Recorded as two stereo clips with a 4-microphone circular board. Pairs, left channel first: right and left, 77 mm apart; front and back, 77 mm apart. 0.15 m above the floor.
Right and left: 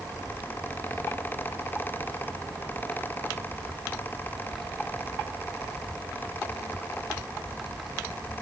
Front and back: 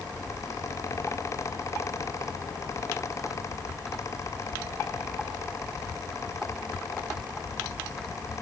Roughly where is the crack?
I don't hear a crack.